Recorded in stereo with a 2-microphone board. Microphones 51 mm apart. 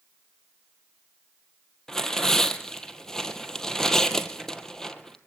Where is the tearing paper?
10° left (ahead or behind), 1.6 m.